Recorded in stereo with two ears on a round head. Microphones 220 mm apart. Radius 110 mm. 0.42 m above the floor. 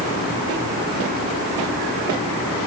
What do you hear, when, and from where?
Only background noise.